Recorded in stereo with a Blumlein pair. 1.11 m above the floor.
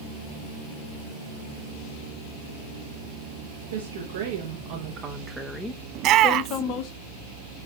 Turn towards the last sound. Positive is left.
turn(degrees=-35)